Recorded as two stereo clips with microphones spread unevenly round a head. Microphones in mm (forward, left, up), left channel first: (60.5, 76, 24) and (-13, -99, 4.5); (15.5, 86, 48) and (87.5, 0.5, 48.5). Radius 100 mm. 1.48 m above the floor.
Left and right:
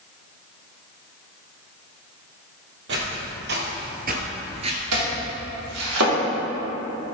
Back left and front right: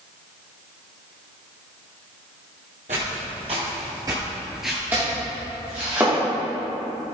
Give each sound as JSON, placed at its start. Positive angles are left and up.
{"t": 2.9, "sound": "footsteps", "azimuth_deg": -95, "distance_m": 2.5}
{"t": 4.9, "sound": "chopping", "azimuth_deg": -130, "distance_m": 2.5}